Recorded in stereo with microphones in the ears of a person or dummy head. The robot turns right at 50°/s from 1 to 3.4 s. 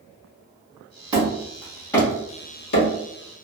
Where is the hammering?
25° right (ahead or behind), 1.5 m; by 2.9 s 60° left (ahead or behind), 1.5 m.